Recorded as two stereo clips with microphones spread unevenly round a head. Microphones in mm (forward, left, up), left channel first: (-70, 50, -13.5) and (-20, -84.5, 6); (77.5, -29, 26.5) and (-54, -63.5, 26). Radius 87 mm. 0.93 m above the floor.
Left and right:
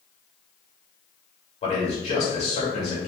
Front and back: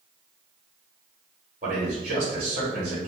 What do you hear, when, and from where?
1.6 s a man speaking: 145° left, 1.9 m